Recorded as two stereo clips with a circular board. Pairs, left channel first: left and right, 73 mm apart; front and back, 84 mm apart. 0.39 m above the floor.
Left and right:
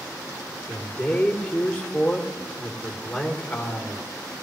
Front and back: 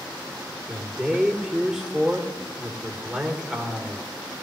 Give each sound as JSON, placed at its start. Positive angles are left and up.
{"t": 0.7, "sound": "a man speaking", "azimuth_deg": 105, "distance_m": 1.5}